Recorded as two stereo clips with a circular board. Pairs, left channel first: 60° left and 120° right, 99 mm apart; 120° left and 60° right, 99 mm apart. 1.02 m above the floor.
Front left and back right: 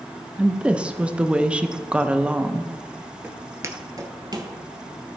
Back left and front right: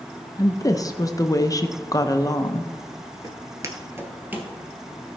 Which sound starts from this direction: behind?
A woman speaking, at 0.4 s.